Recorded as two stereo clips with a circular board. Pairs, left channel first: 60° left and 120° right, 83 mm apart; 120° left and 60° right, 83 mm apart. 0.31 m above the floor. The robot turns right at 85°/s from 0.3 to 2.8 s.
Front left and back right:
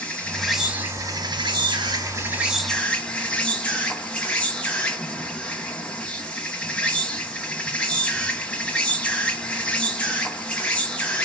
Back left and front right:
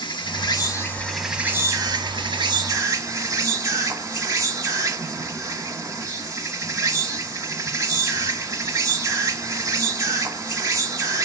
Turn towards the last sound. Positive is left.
turn(degrees=-15)